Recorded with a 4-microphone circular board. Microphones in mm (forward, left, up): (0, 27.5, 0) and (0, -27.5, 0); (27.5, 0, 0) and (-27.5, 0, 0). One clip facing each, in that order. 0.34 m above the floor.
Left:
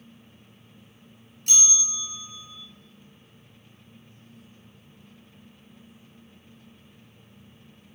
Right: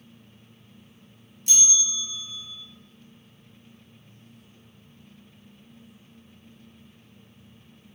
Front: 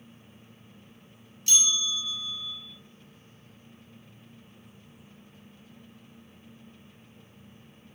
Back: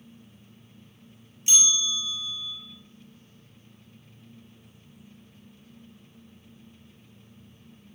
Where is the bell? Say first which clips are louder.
Even, back 1 dB; 110° left, 1.7 m.